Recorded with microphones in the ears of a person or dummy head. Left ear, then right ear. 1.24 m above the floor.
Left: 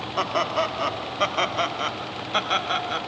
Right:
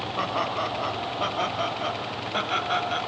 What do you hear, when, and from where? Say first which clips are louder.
0.2 s laughter: left 4 dB; 85° left, 3 m; by 3.0 s 20° left (ahead or behind), 2 m